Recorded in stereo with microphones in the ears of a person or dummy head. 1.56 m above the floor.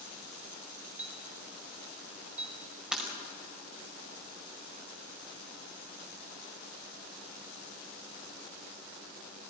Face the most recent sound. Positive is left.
turn(degrees=-5)  # may be behind; listen again after turning